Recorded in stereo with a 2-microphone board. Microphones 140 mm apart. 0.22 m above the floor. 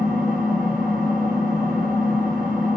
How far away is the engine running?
About 1.1 m.